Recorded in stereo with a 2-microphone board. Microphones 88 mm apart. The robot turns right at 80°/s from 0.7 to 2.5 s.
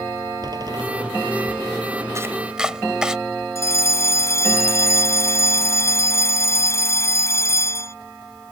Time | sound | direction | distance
0.4 | a door slam | 50° right (ahead or behind) | ?
2.1 | chopping | 35° right (ahead or behind) | ?
3.5 | a fire alarm | 35° left (ahead or behind) | ?